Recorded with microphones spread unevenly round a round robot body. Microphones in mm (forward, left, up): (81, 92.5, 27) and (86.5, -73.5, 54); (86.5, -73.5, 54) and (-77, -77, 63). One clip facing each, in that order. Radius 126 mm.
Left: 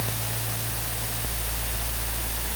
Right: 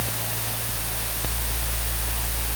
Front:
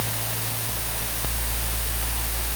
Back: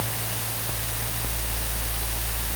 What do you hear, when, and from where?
Only background noise.